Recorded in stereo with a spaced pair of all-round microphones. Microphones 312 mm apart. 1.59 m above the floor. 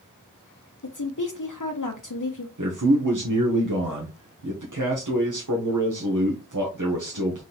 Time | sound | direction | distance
0.8 | a woman speaking | 75° left (ahead or behind) | 0.7 m
2.6 | a man speaking | 75° right (ahead or behind) | 1.2 m